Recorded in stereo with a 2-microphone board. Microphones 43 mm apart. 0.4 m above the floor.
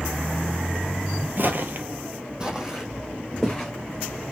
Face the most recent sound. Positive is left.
turn(degrees=-5)  # may be behind; listen again after turning